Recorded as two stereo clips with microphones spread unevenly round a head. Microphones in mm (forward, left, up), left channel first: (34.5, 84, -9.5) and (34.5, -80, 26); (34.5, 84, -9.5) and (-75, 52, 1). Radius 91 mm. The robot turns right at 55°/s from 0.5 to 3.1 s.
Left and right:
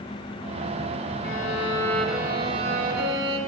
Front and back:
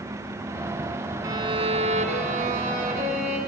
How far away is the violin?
About 3.5 m.